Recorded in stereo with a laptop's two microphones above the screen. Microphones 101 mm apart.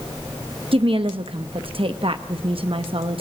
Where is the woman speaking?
60° right (ahead or behind), 0.7 m.